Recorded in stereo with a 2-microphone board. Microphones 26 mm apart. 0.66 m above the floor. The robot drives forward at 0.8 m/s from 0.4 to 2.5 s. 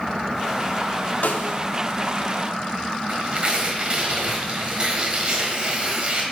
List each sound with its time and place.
1.2 s a snare drum: 75° left (ahead or behind), 0.6 m; by 1.6 s 65° left (ahead or behind), 0.7 m
3.1 s tearing paper: 35° right (ahead or behind), 1.4 m